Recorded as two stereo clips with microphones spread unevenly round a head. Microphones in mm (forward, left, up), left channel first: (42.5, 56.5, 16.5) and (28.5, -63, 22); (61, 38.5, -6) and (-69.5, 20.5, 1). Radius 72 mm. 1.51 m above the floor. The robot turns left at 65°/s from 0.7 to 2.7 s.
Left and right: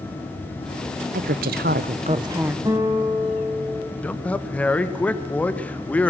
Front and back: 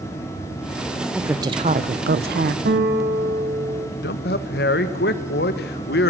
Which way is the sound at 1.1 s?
85° right.